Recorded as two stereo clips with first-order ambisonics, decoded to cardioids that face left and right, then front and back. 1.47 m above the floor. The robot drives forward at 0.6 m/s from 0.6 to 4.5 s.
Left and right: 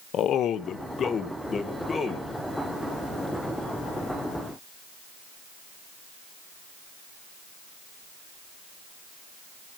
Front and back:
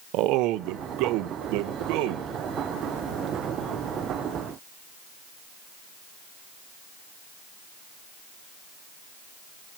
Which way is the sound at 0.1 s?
145° left.